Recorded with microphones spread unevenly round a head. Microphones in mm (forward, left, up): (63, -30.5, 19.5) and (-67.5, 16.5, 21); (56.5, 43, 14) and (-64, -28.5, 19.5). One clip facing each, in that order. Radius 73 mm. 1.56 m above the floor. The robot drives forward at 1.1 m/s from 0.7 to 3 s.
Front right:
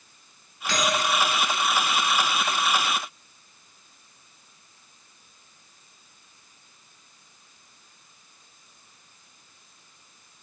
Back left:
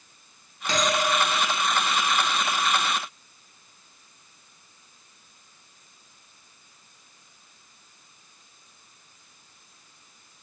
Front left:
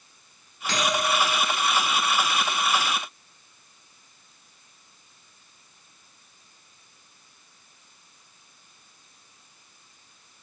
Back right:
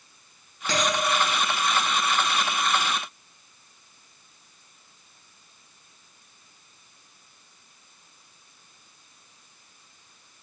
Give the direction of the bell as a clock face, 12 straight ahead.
4 o'clock.